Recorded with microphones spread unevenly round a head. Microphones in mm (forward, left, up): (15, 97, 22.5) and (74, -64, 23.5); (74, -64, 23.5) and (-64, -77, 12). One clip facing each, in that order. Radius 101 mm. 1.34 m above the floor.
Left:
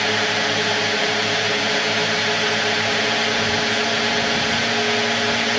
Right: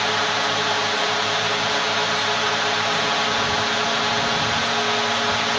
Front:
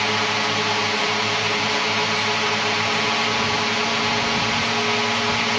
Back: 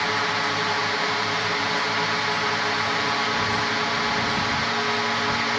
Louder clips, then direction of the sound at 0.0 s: Left 2 dB, front 2 dB; 70° left.